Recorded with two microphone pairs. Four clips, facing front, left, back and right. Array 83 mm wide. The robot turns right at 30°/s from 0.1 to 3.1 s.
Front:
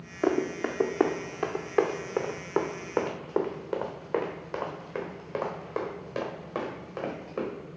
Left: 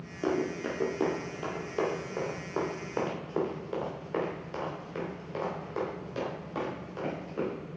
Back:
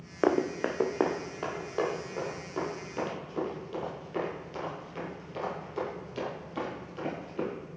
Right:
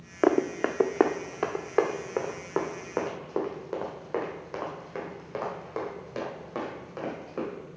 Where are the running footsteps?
120° right, 1.0 m; by 7.5 s 30° right, 5 m.